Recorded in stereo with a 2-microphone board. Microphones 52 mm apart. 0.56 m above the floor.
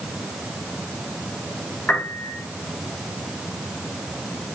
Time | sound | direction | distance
1.9 | a piano | 20° left (ahead or behind) | 2.5 m